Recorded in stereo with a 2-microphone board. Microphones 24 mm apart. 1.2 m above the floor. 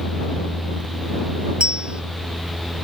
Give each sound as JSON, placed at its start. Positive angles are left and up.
{"t": 1.6, "sound": "a bell", "side_deg": -45}